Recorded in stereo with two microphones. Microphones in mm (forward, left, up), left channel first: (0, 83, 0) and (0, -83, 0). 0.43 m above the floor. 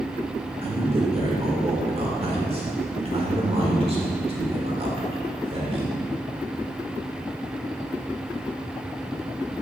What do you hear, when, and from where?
0.6 s a man speaking: 35° right (ahead or behind), 1.3 m